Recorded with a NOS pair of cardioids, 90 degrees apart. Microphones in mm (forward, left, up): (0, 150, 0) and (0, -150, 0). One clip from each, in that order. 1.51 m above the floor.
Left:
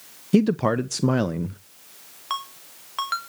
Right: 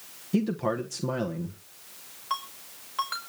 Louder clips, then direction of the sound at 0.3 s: Left 7 dB; 40° left.